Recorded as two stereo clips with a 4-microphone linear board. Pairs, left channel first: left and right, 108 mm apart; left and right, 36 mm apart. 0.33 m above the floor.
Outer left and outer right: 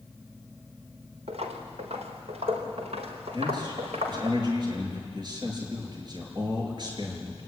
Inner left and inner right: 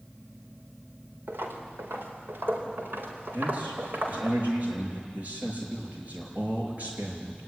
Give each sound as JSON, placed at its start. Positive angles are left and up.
{"t": 1.3, "sound": "footsteps", "side_deg": -70, "distance_m": 4.0}
{"t": 3.3, "sound": "a man speaking", "side_deg": -45, "distance_m": 6.5}